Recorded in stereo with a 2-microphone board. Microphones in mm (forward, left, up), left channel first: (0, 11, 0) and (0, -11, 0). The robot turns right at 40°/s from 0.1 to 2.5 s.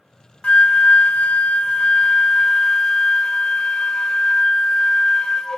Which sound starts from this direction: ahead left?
A flute, at 0.4 s.